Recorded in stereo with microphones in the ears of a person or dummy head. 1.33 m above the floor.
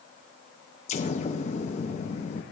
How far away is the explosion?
About 0.8 m.